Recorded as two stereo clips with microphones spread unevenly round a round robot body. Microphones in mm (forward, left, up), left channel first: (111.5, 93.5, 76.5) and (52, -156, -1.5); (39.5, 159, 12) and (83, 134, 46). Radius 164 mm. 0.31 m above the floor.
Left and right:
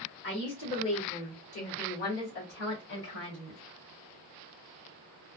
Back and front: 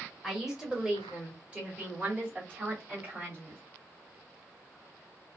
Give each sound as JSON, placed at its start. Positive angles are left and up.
{"t": 0.2, "sound": "a woman speaking", "azimuth_deg": 120, "distance_m": 1.4}